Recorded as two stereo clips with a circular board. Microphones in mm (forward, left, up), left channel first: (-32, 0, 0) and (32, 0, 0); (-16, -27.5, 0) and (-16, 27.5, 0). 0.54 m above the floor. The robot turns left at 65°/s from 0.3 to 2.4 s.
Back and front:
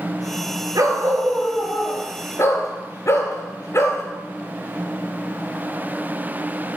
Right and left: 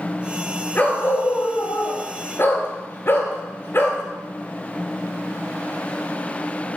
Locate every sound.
0.8 s a dog barking: 25° right, 2.5 m; by 4.0 s 130° right, 2.5 m